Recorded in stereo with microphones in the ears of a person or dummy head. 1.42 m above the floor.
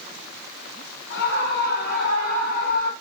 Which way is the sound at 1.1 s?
65° left (ahead or behind).